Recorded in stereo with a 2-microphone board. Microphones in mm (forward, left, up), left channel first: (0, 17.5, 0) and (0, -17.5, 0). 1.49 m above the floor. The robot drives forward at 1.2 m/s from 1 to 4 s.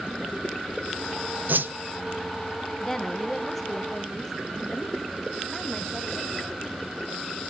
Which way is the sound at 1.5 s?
55° right (ahead or behind).